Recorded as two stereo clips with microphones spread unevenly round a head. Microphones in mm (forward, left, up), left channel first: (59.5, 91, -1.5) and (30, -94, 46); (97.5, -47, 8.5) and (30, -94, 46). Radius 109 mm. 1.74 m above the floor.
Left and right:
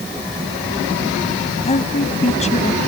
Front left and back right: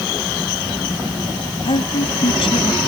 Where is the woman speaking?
25° left.